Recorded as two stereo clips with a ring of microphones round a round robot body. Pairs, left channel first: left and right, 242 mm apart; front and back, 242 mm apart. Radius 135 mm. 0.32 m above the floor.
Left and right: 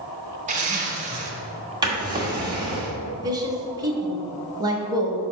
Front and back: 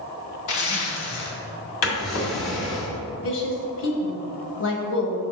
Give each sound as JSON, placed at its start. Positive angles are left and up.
{"t": 0.5, "sound": "a zipper", "azimuth_deg": -30, "distance_m": 1.3}
{"t": 1.8, "sound": "a drawer", "azimuth_deg": -20, "distance_m": 1.6}
{"t": 3.2, "sound": "a woman speaking", "azimuth_deg": -20, "distance_m": 1.5}